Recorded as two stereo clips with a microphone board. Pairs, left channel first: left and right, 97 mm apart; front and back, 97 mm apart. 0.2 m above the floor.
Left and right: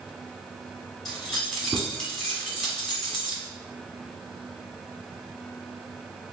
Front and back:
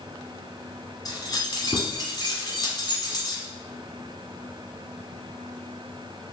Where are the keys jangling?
10° left, 1.2 m.